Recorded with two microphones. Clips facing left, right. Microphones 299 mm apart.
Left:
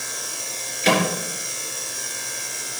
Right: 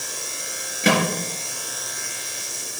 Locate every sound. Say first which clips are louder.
0.8 s a microwave: even; 70° right (ahead or behind), 4 m